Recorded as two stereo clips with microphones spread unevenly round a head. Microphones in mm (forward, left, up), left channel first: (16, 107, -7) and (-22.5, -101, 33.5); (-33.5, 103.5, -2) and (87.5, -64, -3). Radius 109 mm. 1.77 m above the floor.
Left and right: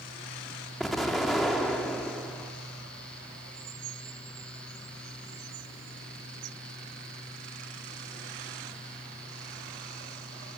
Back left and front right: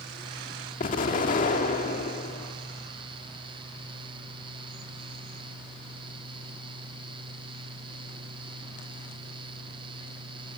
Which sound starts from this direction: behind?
An explosion, at 0.8 s.